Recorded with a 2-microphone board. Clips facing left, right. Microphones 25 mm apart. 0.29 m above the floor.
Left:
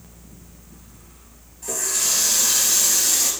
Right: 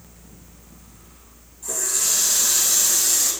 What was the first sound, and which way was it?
A running tap, 75° left (ahead or behind).